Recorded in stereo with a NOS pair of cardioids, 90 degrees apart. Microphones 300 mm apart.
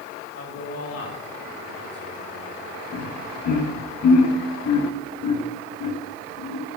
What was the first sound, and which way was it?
A man speaking, 50° left.